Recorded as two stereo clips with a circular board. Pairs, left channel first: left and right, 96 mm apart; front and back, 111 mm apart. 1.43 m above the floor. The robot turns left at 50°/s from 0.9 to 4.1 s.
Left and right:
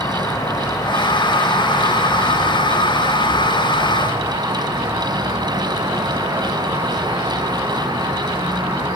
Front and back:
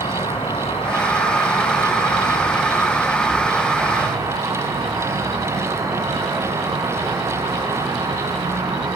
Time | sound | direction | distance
0.0 | an insect | 35° left | 3.5 m